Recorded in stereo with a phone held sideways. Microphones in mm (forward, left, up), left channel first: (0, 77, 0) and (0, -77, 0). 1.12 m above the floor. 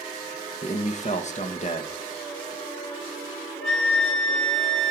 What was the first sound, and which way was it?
A man speaking, 50° left (ahead or behind).